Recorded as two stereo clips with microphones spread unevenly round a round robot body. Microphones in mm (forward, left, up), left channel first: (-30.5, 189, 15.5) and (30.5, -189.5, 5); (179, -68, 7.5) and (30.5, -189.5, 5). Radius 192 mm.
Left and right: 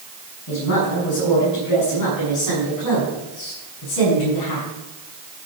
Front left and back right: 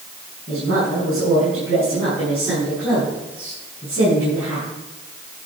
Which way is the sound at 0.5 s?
150° left.